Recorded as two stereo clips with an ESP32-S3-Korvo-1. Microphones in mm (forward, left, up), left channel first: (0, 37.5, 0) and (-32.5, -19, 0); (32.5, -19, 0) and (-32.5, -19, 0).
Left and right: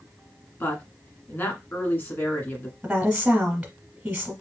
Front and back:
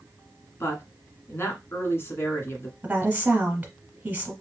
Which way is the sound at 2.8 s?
175° right.